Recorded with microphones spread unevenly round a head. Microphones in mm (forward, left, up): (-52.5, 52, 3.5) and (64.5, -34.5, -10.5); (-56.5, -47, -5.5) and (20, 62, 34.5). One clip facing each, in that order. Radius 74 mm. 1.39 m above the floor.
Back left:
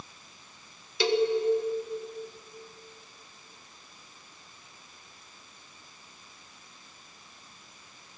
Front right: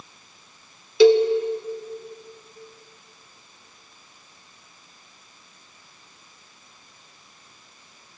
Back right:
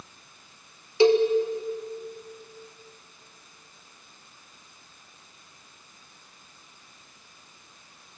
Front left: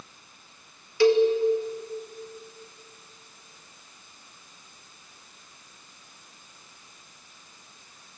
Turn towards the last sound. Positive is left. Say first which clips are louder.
# front right 11 dB, even
turn(degrees=-55)